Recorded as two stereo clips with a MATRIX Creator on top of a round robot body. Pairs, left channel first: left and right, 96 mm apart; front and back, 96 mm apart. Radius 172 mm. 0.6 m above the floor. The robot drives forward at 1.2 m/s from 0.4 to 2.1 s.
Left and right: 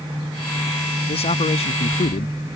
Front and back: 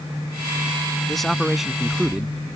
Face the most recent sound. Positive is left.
turn(degrees=95)